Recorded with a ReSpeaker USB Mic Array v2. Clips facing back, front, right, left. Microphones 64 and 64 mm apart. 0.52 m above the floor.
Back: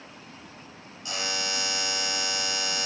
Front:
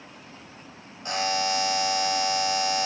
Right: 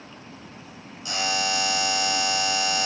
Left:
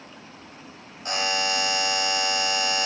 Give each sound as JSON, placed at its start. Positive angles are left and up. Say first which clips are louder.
{"t": 1.1, "sound": "a buzzer", "louder": "front 7 dB, left 1 dB", "azimuth_deg": 45, "distance_m": 2.0}